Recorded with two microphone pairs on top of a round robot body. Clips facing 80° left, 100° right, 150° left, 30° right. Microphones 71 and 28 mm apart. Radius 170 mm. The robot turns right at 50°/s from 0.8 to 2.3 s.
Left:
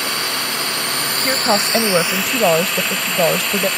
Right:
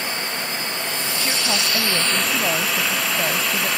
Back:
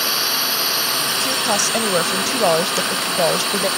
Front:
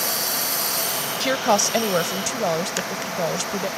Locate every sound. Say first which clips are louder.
0.0 s a drone: left 4 dB, back 6 dB; 95° left; by 3.8 s 170° left
1.2 s a woman speaking: left 8 dB, front 4 dB; 25° left; by 3.7 s 80° left